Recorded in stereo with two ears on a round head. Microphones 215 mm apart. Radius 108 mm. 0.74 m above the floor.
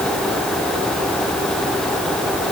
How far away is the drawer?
No drawer in this recording.